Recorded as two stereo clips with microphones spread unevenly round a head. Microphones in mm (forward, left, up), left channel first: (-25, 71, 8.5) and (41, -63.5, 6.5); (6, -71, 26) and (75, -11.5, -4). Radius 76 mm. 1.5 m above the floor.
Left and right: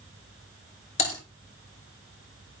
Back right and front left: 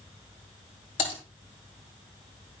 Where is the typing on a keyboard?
170° left, 6.5 m.